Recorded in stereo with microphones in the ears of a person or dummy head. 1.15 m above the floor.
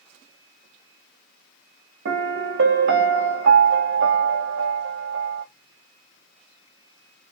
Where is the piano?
65° right (ahead or behind), 0.9 m.